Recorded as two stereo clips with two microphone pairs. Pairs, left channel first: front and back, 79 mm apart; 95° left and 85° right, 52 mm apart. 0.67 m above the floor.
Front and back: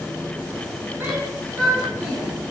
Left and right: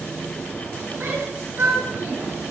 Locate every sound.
1.0 s a shout: 115° right, 8 m; by 2.3 s 120° right, 9.5 m